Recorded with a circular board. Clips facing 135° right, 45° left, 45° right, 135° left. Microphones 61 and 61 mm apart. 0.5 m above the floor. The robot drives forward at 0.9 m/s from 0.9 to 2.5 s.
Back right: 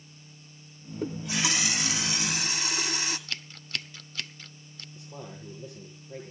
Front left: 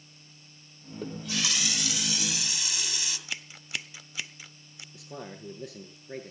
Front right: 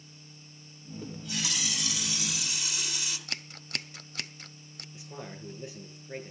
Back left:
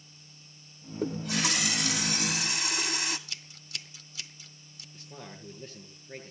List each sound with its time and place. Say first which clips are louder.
1.0 s a running tap: back right 3 dB, back left 7 dB; 150° left, 0.9 m; by 3.2 s 170° left, 2 m
3.3 s scissors: even, front right 5 dB; 30° right, 0.9 m
4.9 s a man speaking: front left 2 dB, front right 3 dB; 35° left, 9.5 m